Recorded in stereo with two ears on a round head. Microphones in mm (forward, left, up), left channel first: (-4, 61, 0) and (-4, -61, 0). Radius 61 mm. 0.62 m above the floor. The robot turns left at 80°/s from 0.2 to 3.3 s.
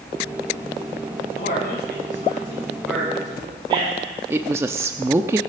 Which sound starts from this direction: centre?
A woman speaking, at 4.3 s.